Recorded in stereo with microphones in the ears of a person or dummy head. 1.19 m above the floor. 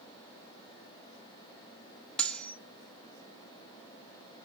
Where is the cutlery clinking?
5° left (ahead or behind), 0.5 m.